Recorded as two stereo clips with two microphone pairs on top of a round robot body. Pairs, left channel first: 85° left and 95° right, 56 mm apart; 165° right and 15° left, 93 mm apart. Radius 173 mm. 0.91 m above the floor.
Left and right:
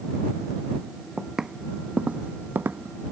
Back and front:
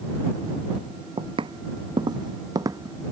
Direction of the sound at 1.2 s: 15° right.